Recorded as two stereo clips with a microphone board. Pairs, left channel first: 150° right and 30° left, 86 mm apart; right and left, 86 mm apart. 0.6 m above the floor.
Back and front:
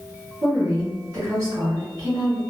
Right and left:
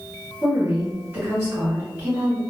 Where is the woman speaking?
40° left, 1.5 m.